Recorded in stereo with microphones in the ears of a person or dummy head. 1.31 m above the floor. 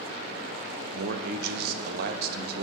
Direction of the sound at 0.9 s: 60° right (ahead or behind).